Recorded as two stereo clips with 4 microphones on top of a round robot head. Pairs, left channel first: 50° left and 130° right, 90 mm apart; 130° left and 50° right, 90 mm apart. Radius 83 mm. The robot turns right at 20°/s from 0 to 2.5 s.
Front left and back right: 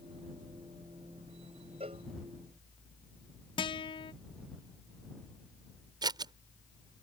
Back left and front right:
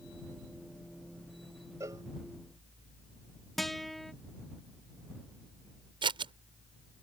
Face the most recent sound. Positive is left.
turn(degrees=-85)